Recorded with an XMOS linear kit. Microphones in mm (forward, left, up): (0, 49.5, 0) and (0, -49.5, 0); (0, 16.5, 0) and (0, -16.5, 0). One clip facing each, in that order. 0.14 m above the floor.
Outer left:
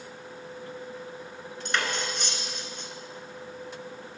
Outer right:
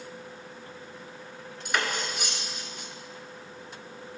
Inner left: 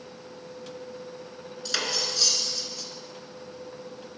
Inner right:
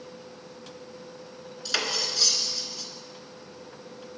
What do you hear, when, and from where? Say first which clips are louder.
1.6 s cutlery clinking: even, inner right 1 dB; 10° right (ahead or behind), 1.1 m